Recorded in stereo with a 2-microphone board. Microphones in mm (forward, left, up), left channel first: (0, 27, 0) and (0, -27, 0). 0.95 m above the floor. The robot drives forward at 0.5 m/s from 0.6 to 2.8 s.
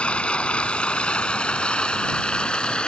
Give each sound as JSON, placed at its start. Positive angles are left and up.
{"t": 0.0, "sound": "running water", "side_deg": 20}